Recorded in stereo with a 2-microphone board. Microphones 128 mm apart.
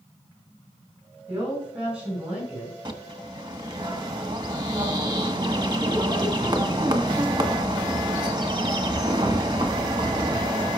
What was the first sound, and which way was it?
A woman speaking, 10° right (ahead or behind).